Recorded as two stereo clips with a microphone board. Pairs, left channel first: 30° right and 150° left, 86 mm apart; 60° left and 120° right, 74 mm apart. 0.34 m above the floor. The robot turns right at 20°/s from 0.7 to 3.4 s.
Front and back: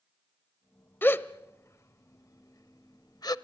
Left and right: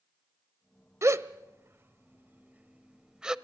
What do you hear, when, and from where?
1.0 s a gasp: 90° right, 0.6 m; by 3.4 s 40° right, 0.6 m